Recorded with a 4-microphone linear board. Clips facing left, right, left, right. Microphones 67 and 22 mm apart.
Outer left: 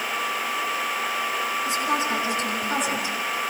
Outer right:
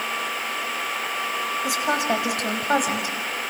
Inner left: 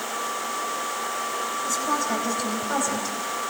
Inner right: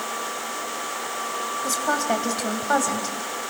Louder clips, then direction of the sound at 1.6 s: Outer right 3 dB, inner right 3 dB; 75° right (ahead or behind).